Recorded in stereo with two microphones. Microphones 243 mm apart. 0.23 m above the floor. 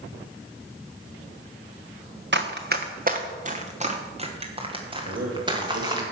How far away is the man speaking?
About 5 m.